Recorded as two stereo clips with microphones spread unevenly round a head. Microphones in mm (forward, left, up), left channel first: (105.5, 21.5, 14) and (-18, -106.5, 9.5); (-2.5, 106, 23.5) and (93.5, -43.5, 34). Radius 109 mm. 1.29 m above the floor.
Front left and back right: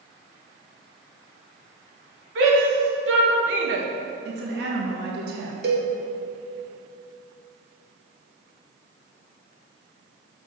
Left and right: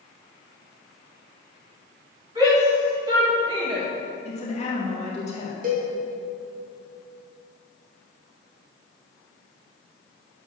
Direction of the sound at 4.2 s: Straight behind.